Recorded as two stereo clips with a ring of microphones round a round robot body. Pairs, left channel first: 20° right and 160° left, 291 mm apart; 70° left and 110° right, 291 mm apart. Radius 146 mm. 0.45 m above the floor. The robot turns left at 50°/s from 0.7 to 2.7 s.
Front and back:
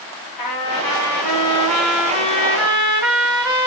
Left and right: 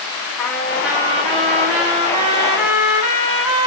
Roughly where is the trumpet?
Ahead.